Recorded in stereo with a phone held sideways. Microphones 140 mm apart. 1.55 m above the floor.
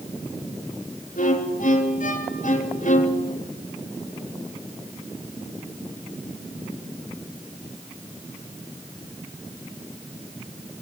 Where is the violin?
85° left, 3.5 m.